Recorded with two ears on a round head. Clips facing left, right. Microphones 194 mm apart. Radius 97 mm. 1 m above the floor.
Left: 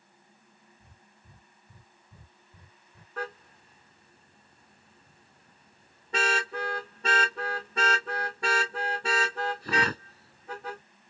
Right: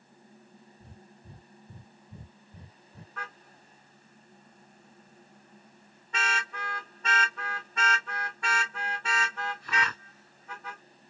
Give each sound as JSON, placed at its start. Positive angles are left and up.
{"t": 0.8, "sound": "breathing", "side_deg": -20}
{"t": 3.2, "sound": "a car horn", "side_deg": 30}